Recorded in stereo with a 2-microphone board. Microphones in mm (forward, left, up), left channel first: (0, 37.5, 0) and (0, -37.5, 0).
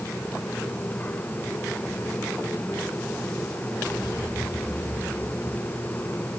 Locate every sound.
Only background noise.